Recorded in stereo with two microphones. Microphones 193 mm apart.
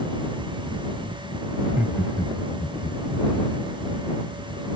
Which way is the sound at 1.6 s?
20° right (ahead or behind).